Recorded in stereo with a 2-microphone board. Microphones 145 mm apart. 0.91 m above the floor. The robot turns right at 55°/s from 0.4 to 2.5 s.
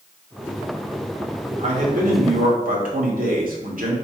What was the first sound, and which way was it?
A man speaking, 130° right.